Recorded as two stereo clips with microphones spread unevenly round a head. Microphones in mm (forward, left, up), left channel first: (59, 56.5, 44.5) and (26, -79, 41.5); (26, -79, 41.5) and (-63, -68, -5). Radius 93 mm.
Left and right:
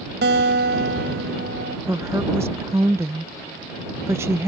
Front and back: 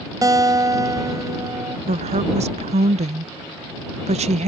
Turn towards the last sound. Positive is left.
turn(degrees=180)